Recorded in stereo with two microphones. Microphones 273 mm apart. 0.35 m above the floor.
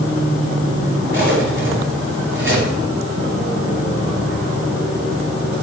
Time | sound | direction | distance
1.1 | cutlery clinking | 45° right (ahead or behind) | 4.5 m